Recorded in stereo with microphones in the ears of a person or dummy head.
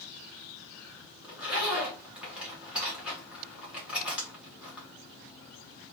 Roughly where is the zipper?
Centre.